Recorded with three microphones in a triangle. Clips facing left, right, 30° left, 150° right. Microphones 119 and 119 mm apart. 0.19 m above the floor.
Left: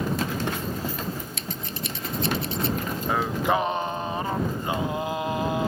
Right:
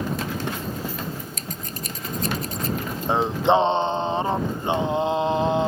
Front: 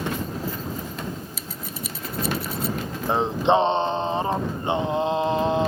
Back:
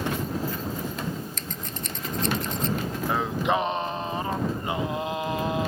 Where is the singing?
30° right.